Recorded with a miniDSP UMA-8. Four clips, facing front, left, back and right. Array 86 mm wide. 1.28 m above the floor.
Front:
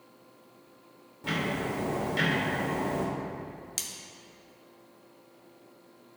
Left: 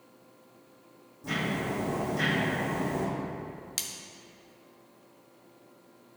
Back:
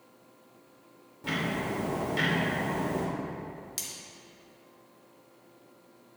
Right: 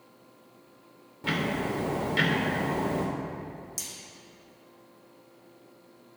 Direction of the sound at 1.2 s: 90° right.